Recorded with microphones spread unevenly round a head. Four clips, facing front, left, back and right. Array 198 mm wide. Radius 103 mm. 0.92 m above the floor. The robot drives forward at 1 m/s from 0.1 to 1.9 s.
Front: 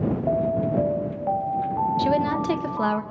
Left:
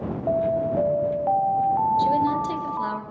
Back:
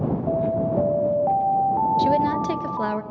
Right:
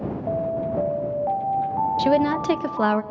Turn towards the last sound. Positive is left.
turn(degrees=-95)